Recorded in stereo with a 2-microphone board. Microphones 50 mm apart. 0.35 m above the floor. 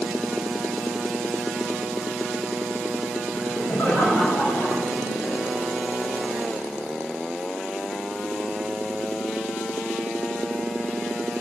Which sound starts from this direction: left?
Laughter, at 3.3 s.